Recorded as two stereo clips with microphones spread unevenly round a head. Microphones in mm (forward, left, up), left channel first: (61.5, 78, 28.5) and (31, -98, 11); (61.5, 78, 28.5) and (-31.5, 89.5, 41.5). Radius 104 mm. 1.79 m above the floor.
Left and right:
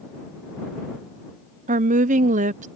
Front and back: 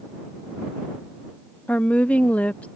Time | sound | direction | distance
1.7 | a woman speaking | 95° right | ?